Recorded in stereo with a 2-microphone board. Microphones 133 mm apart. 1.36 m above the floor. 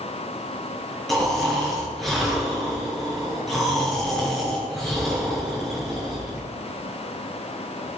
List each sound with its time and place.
1.1 s snoring: centre (ahead or behind), 6 m